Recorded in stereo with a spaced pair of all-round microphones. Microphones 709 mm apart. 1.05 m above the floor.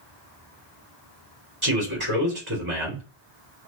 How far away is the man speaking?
About 1.3 m.